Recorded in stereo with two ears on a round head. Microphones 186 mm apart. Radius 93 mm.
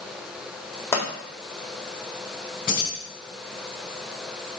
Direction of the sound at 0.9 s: 15° left (ahead or behind).